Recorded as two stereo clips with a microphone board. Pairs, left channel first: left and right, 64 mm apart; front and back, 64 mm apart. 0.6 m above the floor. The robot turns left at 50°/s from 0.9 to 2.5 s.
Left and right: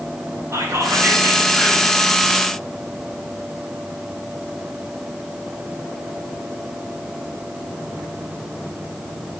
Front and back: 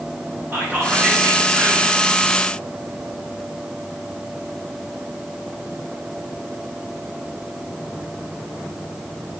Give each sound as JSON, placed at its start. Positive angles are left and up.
{"t": 0.5, "sound": "whispering", "azimuth_deg": -125, "distance_m": 2.5}